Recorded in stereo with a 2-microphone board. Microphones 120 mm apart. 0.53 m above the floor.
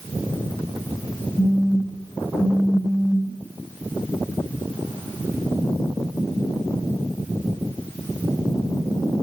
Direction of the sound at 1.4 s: 10° left (ahead or behind).